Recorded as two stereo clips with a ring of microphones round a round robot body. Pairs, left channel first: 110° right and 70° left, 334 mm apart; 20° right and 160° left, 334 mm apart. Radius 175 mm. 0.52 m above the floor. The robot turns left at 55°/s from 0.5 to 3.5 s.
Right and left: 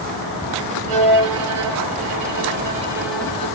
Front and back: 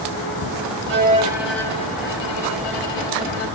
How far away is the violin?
About 0.8 m.